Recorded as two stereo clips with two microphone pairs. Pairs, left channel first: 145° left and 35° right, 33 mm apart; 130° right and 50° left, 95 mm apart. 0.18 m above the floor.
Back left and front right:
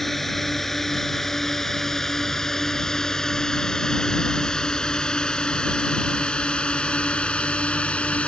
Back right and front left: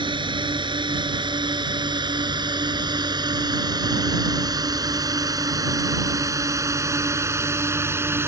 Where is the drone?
65° left; by 8.3 s 105° left.